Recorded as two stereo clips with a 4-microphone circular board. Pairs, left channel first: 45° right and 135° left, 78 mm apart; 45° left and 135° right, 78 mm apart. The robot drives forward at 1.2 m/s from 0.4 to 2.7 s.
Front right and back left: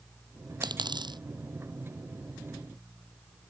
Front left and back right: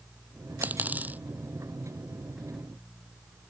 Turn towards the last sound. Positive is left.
turn(degrees=160)